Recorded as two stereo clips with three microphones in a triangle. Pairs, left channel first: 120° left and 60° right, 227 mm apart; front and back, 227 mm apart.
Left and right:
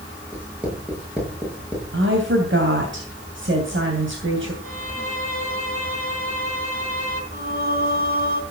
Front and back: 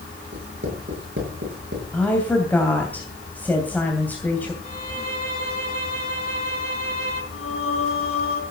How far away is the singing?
About 3 m.